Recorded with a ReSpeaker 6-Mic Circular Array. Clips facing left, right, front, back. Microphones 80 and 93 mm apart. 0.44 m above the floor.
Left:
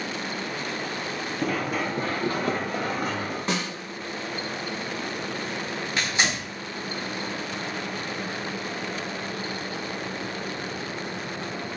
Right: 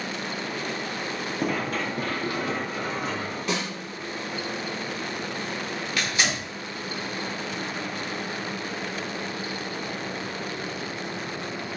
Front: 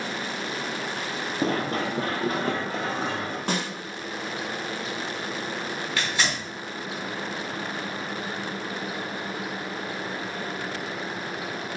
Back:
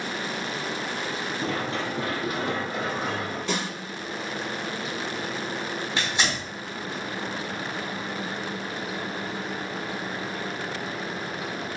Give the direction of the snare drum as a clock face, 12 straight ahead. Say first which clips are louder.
Even, front 1 dB; 11 o'clock.